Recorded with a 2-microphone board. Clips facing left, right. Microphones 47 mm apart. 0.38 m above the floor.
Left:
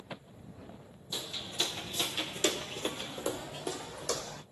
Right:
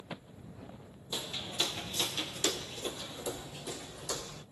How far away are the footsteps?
About 0.8 m.